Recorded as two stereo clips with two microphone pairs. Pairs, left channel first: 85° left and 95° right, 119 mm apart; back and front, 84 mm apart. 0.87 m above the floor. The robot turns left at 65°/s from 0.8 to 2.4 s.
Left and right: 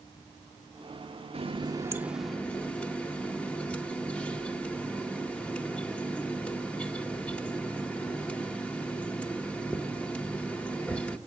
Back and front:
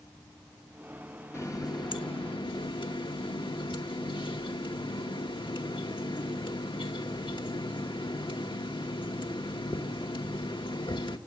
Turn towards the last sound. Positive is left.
turn(degrees=165)